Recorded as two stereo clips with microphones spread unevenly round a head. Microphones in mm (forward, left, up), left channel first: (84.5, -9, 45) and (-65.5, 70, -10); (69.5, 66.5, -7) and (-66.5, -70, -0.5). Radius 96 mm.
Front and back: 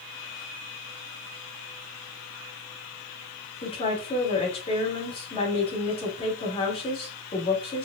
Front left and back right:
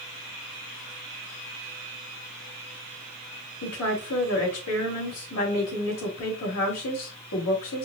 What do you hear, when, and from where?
3.6 s a woman speaking: 35° left, 2 m